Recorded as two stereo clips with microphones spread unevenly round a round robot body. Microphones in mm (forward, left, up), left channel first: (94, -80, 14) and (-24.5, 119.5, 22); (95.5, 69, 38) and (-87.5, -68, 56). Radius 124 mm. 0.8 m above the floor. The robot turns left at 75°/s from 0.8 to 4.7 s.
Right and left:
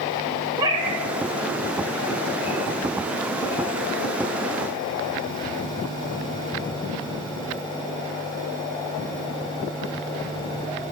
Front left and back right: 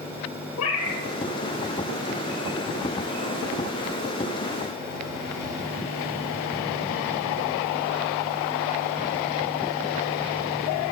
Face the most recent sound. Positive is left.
turn(degrees=120)